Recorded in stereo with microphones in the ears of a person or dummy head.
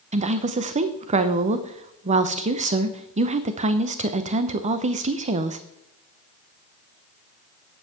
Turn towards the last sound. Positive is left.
turn(degrees=-35)  # may be behind; listen again after turning